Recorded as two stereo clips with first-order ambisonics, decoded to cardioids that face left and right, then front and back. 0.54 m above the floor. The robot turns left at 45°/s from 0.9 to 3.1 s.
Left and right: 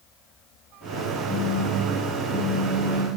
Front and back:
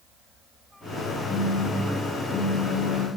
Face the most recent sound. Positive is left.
turn(degrees=5)